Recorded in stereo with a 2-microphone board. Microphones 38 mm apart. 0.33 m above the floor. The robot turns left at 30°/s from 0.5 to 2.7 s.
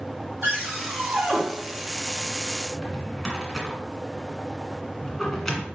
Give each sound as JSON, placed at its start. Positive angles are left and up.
{"t": 0.4, "sound": "a cupboard door", "side_deg": -60, "distance_m": 3.0}
{"t": 2.7, "sound": "a drawer", "side_deg": 5, "distance_m": 1.8}